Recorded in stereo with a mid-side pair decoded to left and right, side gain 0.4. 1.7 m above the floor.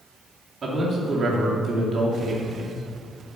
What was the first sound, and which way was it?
A man speaking, 50° right.